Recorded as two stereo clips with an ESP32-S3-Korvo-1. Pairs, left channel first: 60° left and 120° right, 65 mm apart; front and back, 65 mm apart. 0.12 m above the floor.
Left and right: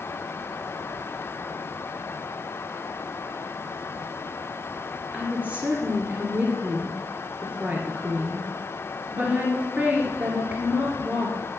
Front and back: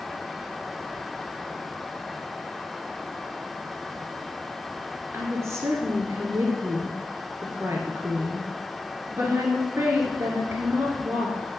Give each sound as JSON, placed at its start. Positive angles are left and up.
{"t": 5.1, "sound": "a woman speaking", "azimuth_deg": 180, "distance_m": 2.0}